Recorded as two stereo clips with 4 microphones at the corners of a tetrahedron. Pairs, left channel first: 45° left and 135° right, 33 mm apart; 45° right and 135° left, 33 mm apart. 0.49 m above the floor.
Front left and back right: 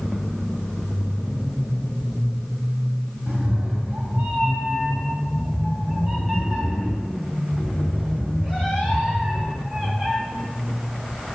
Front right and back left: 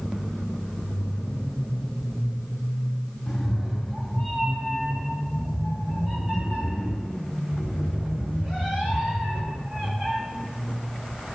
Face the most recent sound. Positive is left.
turn(degrees=170)